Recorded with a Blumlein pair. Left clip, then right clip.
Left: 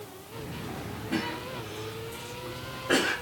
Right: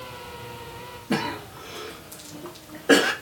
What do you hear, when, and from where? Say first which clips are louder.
1.1 s a cough: right 5 dB; 35° right, 0.8 m